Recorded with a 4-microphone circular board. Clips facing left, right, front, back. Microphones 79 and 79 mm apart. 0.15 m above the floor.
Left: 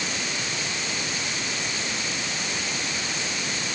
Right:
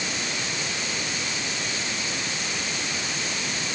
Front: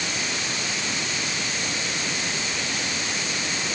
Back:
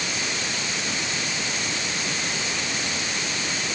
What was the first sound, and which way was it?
Only background noise.